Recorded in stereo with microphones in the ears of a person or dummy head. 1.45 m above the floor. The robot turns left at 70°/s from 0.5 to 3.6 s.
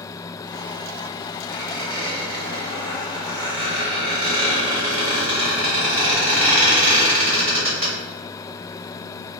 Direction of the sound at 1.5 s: 15° left (ahead or behind).